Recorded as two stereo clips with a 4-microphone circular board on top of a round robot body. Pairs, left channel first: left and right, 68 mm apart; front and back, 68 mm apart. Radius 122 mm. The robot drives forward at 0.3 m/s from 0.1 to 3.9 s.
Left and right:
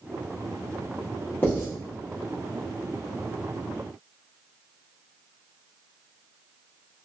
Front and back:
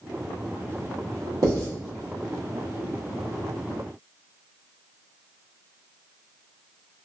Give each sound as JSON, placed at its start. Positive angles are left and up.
{"t": 1.4, "sound": "writing", "azimuth_deg": 150, "distance_m": 1.3}